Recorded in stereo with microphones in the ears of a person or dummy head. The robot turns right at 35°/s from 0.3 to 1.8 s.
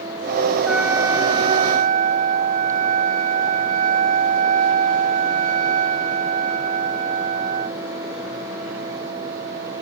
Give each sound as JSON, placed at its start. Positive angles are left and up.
{"t": 0.7, "sound": "a trumpet", "azimuth_deg": -175}